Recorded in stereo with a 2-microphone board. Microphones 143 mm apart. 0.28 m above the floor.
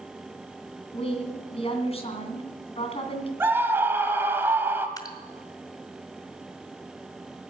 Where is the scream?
15° right (ahead or behind), 1.4 m.